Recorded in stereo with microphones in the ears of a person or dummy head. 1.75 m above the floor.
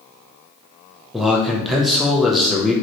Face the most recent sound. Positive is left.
turn(degrees=0)  # may be behind; listen again after turning